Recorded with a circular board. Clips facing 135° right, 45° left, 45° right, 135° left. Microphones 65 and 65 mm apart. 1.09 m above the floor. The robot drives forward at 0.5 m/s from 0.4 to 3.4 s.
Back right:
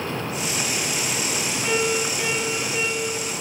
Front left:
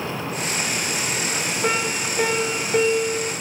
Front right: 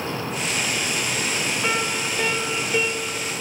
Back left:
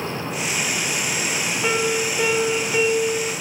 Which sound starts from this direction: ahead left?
A piano, at 1.6 s.